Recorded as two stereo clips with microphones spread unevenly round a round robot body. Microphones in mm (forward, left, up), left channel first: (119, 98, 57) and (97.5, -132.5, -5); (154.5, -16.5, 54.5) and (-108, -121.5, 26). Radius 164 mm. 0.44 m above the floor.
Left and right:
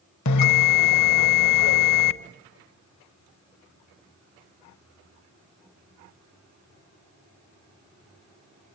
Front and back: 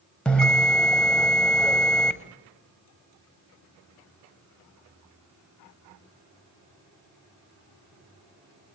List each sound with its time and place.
0.2 s a bell: 110° left, 0.8 m